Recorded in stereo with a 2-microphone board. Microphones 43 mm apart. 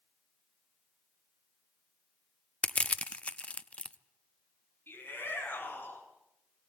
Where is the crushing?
25° left (ahead or behind), 0.6 m.